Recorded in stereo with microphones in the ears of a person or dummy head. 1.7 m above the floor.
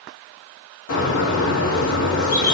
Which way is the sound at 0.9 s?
70° left (ahead or behind).